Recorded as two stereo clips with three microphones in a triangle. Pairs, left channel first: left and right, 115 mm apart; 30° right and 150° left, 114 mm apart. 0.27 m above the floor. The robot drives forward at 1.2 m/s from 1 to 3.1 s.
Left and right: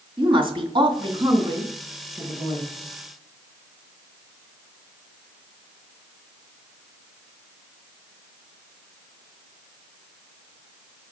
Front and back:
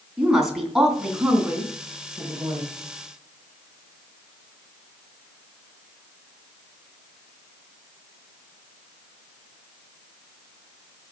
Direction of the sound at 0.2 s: 125° right.